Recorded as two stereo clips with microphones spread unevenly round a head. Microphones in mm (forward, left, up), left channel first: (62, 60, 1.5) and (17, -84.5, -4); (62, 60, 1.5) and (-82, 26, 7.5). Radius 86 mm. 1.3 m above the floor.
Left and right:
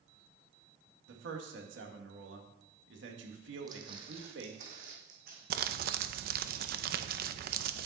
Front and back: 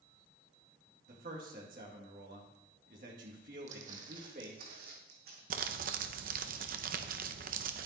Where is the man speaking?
120° right, 2 m.